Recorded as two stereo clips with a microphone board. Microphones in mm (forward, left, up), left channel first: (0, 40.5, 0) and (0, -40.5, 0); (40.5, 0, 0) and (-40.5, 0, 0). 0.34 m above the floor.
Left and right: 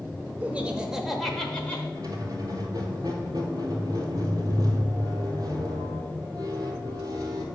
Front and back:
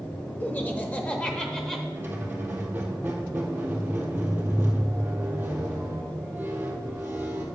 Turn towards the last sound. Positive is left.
turn(degrees=-120)